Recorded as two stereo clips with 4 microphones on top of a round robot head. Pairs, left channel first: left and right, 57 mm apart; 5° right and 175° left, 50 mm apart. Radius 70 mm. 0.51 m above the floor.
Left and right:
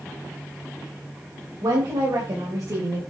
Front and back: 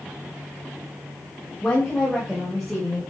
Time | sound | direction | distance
1.6 | a woman speaking | 80° right | 3.5 m